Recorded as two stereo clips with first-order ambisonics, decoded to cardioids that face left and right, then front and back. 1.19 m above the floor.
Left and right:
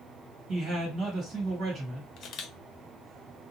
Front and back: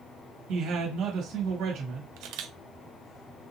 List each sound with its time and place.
0.5 s a man speaking: 150° right, 1.7 m
2.2 s a camera shutter: 145° left, 0.5 m